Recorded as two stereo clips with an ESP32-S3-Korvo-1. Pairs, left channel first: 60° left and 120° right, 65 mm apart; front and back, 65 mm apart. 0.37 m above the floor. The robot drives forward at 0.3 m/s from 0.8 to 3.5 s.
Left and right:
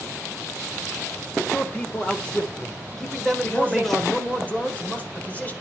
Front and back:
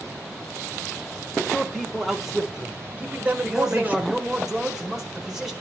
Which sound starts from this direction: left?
A man speaking, at 3.4 s.